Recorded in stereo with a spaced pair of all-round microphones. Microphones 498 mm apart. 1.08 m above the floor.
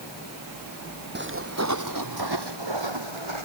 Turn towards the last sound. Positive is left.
turn(degrees=-70)  # may be behind; listen again after turning